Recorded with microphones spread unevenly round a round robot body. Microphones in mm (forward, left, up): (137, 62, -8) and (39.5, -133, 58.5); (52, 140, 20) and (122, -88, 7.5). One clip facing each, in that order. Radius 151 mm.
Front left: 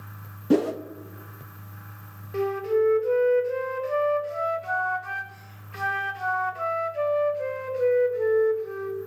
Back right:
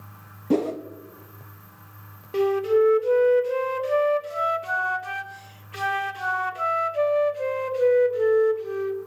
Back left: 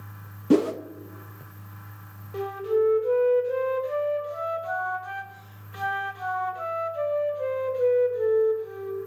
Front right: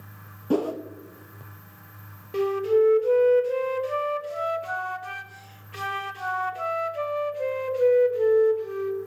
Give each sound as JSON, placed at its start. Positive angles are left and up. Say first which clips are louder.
{"t": 0.5, "sound": "a whoosh", "louder": "front left 1 dB, back left 4 dB", "azimuth_deg": 70, "distance_m": 0.6}
{"t": 2.3, "sound": "a flute", "louder": "back right 4 dB, front right 4 dB", "azimuth_deg": -70, "distance_m": 0.8}